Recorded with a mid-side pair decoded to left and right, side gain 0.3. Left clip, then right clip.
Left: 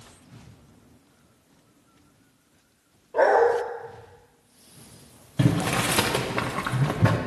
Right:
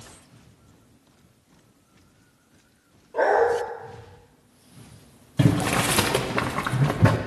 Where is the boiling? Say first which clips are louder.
Right 2 dB; 30° right, 0.6 m.